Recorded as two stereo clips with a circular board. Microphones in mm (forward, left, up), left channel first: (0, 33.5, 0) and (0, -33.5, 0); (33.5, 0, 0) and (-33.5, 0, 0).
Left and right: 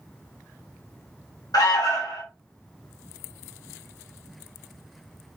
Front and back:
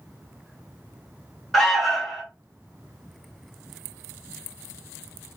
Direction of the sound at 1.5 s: 85° left.